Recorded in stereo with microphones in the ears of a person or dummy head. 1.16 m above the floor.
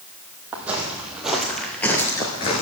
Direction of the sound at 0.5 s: 5° right (ahead or behind).